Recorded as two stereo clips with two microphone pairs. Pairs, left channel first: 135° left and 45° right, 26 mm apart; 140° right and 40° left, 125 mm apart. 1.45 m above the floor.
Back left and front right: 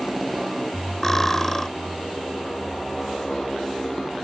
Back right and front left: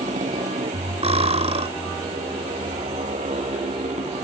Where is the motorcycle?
45° left; by 4.2 s 60° left.